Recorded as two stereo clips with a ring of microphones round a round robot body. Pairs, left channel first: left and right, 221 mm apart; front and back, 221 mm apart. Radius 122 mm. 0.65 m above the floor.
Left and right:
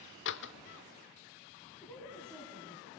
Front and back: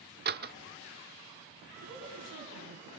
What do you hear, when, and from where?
0.2 s a door slam: 135° left, 1.2 m
1.8 s a woman speaking: 175° left, 6 m